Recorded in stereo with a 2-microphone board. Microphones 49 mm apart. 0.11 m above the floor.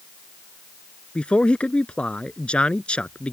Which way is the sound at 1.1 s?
20° left (ahead or behind).